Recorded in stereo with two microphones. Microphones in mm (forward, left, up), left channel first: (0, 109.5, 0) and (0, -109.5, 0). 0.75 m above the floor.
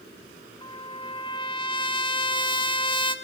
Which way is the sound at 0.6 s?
20° left (ahead or behind).